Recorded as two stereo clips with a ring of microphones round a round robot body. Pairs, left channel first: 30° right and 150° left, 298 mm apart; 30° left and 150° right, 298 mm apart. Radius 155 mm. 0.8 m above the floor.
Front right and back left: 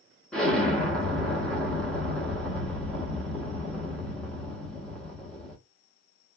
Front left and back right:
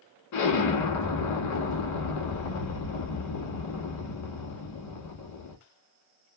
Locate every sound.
0.3 s an explosion: 60° left, 1.3 m